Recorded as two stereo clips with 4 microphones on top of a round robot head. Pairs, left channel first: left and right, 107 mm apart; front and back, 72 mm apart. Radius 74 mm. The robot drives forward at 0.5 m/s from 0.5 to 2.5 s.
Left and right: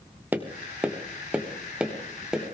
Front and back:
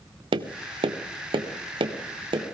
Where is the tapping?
170° right, 0.8 m; by 2.4 s 175° right, 1.8 m.